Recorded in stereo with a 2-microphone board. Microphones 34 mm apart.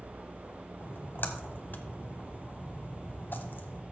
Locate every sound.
0.8 s a splash: 70° left (ahead or behind), 1.0 m